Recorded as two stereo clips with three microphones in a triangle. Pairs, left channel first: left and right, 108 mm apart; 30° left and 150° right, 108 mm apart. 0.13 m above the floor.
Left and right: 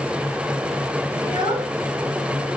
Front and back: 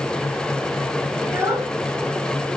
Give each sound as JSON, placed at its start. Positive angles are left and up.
{"t": 1.2, "sound": "a child speaking", "azimuth_deg": -90, "distance_m": 1.4}